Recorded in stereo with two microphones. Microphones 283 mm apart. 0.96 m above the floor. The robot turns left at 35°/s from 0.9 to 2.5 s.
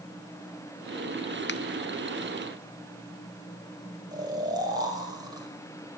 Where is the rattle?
No rattle in this recording.